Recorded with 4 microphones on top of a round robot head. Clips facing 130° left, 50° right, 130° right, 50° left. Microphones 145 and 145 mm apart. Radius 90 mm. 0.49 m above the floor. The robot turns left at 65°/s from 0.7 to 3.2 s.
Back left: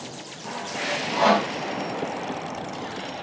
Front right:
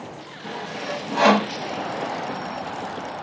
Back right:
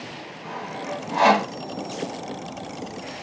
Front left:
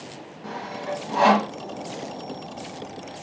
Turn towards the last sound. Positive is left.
turn(degrees=-160)